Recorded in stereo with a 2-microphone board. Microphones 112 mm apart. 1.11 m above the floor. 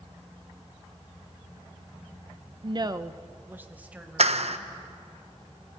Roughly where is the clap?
Right.